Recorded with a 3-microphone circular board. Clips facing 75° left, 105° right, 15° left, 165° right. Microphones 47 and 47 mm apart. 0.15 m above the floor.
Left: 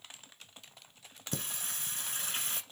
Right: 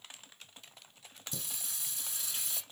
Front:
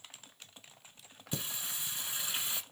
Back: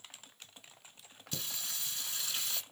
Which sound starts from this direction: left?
Singing, at 1.3 s.